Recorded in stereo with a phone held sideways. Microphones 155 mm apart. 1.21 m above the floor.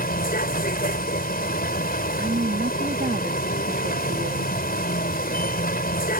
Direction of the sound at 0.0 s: 75° left (ahead or behind).